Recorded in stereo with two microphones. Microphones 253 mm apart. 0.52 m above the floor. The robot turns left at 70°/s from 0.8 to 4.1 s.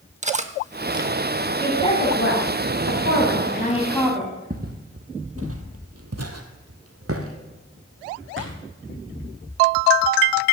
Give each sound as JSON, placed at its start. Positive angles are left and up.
{"t": 0.2, "sound": "cutlery clinking", "side_deg": -25, "distance_m": 0.7}
{"t": 1.6, "sound": "a woman speaking", "azimuth_deg": 175, "distance_m": 3.0}
{"t": 4.5, "sound": "footsteps", "side_deg": -35, "distance_m": 1.2}